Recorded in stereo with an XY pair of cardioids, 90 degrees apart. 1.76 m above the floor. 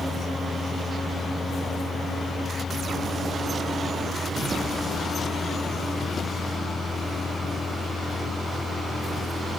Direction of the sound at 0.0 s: 30° left.